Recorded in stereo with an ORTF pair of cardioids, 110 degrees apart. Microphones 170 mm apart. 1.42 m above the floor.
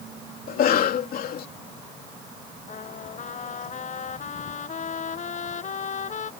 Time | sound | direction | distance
0.5 | a cough | 60° left | ?
2.7 | a trumpet | 45° left | ?